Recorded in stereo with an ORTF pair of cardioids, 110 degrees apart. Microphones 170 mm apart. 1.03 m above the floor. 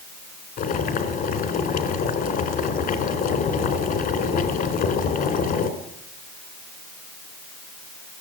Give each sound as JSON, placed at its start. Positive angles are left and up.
{"t": 0.6, "sound": "boiling", "azimuth_deg": 60, "distance_m": 4.0}